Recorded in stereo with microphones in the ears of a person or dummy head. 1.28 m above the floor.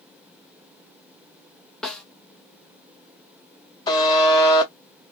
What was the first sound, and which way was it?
A snare drum, 5° left (ahead or behind).